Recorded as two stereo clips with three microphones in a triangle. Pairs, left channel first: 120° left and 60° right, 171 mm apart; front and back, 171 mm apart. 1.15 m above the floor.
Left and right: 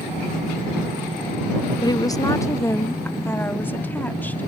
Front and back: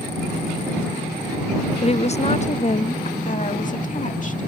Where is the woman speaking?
55° left; by 4.5 s 40° left.